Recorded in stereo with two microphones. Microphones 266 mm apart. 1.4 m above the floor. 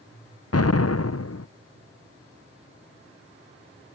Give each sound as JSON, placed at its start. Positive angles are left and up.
{"t": 0.5, "sound": "an explosion", "side_deg": 65}